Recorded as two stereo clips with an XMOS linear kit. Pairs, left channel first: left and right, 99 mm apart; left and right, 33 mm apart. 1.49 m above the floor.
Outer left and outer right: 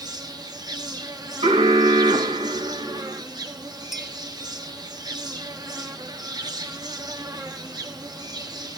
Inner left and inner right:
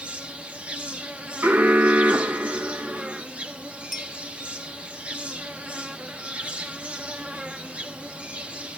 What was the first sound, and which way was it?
An insect, 40° right (ahead or behind).